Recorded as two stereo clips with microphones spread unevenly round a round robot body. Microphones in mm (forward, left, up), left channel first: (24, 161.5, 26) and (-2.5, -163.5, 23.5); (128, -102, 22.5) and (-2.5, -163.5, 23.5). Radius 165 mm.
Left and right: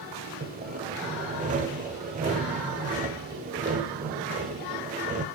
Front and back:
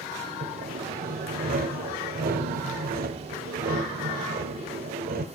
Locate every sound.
0.4 s sawing: 165° right, 0.8 m